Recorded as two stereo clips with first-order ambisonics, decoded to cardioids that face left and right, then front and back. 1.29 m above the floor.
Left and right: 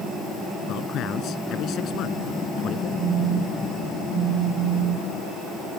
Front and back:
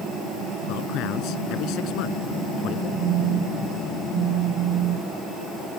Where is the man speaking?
40° left.